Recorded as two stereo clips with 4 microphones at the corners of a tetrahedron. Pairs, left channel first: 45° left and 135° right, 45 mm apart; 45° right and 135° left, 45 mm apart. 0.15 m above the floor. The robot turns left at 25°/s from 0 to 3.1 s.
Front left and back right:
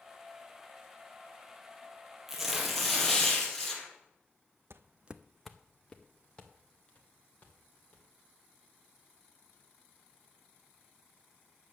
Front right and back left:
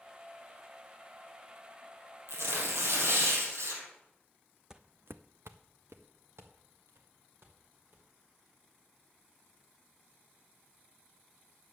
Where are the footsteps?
150° right, 0.5 m; by 8.1 s 105° left, 3.5 m.